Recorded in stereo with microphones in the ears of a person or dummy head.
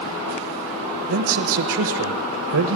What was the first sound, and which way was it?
A man speaking, 65° right (ahead or behind).